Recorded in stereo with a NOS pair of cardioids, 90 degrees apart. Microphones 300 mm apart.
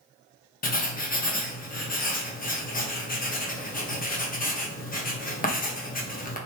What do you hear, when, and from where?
0.6 s writing: 30° left, 1.2 m